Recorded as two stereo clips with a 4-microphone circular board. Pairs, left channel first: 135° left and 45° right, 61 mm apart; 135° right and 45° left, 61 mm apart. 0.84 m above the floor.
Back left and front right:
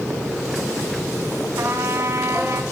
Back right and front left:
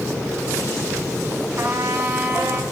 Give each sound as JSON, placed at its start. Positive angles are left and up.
{"t": 1.6, "sound": "a trumpet", "azimuth_deg": -5, "distance_m": 4.5}